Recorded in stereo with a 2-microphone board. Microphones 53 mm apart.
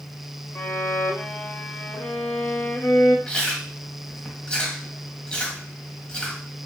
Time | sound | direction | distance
0.6 | a violin | 65° left (ahead or behind) | 0.8 m
3.3 | chewing | 20° left (ahead or behind) | 1.0 m